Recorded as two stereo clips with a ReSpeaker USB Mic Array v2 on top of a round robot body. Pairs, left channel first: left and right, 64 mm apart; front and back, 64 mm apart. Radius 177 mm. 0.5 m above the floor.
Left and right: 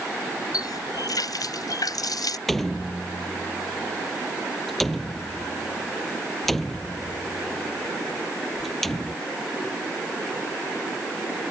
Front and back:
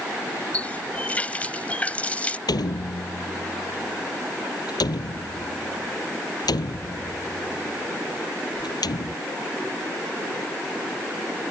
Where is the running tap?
70° left.